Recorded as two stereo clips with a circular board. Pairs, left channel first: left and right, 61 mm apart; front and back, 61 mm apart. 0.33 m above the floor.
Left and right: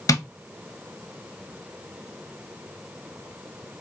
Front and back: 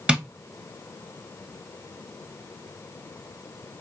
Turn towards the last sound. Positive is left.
turn(degrees=105)